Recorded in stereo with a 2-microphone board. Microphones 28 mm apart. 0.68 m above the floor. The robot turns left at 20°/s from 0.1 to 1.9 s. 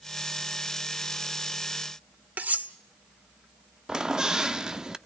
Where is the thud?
No thud in this recording.